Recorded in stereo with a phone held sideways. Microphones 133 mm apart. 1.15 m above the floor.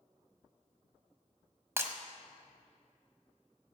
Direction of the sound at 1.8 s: 20° right (ahead or behind).